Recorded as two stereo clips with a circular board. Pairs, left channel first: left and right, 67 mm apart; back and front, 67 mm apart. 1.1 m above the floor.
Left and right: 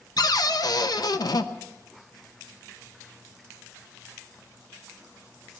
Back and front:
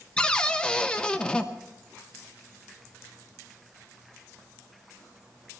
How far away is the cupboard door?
About 0.8 m.